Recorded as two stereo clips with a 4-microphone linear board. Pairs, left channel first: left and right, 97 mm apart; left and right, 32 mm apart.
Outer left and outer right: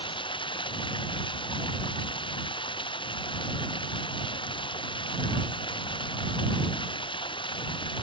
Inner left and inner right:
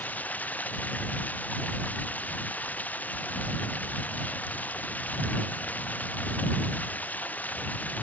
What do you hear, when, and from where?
0.0 s running water: 65° left (ahead or behind)